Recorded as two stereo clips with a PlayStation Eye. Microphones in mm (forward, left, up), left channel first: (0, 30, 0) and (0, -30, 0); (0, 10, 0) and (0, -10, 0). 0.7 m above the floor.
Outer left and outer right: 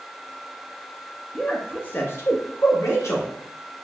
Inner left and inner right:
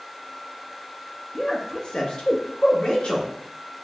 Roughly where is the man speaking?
Centre.